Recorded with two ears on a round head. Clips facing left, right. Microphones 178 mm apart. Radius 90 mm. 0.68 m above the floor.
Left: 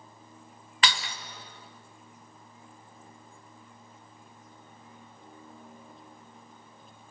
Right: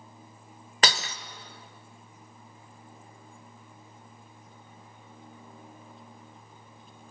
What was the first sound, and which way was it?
Breaking glass, 40° right (ahead or behind).